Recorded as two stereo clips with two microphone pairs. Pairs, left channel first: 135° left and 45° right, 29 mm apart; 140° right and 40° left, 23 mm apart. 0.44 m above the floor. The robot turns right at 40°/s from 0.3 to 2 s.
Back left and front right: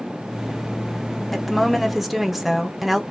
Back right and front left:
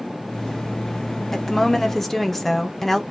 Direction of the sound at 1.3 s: 140° right.